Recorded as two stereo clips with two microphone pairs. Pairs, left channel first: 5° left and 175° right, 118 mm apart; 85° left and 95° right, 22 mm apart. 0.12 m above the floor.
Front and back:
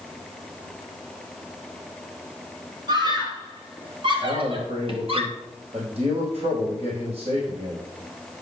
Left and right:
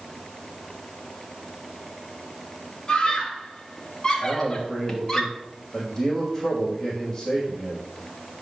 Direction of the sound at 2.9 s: 140° left.